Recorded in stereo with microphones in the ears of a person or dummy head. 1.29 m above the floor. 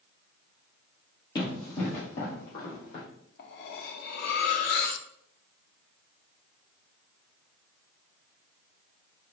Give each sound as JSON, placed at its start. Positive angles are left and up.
{"t": 1.4, "sound": "running footsteps", "side_deg": 25, "distance_m": 2.0}
{"t": 3.4, "sound": "cutlery clinking", "side_deg": 60, "distance_m": 0.7}